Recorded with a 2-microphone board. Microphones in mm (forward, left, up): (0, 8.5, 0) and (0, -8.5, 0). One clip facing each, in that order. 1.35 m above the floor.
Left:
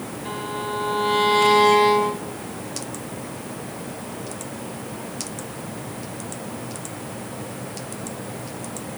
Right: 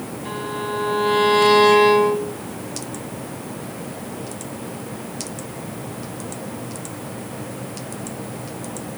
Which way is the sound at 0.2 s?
Centre (ahead or behind).